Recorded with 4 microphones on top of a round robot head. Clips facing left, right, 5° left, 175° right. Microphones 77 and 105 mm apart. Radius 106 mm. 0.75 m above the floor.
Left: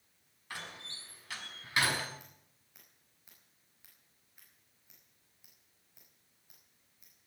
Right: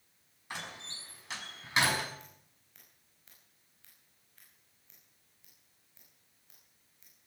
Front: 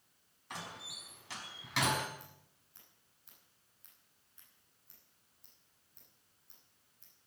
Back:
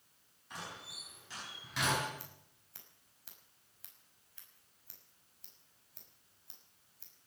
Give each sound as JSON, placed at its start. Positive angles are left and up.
{"t": 0.5, "sound": "a door slam", "azimuth_deg": -25, "distance_m": 5.5}
{"t": 2.2, "sound": "scissors", "azimuth_deg": 170, "distance_m": 5.5}